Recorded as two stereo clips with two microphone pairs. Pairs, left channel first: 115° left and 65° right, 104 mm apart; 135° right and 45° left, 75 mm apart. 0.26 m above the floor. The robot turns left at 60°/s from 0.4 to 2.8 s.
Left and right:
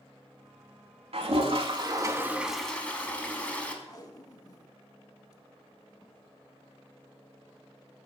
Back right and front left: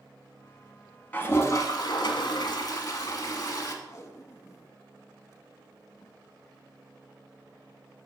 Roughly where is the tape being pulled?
Behind.